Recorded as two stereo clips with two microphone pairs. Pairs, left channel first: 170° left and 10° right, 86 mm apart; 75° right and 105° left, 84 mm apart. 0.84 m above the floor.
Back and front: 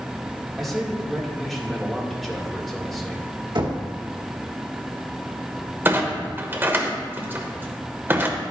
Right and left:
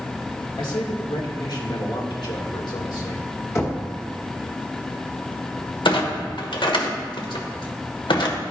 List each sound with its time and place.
0.6 s a man speaking: 105° right, 2 m
3.5 s knocking: 25° right, 1.7 m
5.8 s a clunk: 75° right, 1.1 m